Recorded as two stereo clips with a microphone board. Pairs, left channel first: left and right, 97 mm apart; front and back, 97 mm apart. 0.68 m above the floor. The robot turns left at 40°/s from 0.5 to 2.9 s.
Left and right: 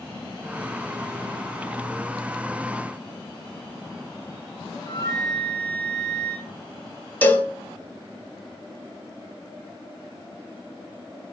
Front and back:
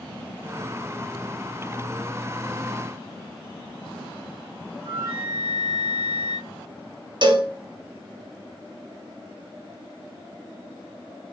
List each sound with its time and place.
4.8 s a flute: 40° left, 1.4 m
7.2 s a cowbell: 160° left, 0.8 m